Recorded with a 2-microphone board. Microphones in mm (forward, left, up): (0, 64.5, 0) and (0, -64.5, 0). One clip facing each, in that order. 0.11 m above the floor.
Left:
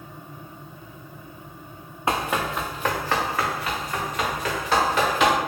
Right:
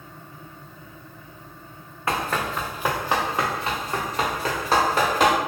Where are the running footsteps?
20° left (ahead or behind), 0.6 m; by 5.3 s 40° right (ahead or behind), 1.9 m.